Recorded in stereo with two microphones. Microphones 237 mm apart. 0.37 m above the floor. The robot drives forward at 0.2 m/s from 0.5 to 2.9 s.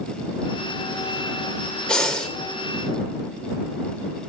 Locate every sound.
1.9 s breathing: 5° left (ahead or behind), 1.1 m